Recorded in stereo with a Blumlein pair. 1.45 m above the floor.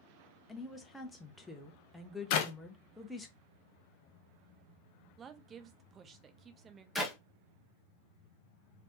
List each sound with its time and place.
0.5 s a woman speaking: 5° left, 1.0 m
2.3 s a clap: 45° left, 0.7 m
5.2 s a woman speaking: 25° right, 0.7 m
7.0 s a clap: straight ahead, 1.2 m